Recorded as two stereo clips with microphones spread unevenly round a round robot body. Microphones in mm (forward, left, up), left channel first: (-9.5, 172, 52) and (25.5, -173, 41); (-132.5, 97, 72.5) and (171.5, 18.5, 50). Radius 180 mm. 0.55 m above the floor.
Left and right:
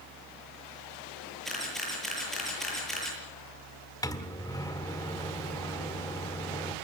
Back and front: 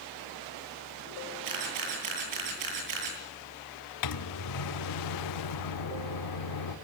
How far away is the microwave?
About 1.5 m.